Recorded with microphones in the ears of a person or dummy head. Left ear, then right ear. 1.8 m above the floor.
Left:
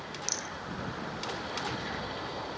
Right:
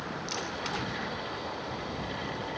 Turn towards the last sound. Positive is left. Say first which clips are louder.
# left 1 dB
turn(degrees=40)  # may be behind; listen again after turning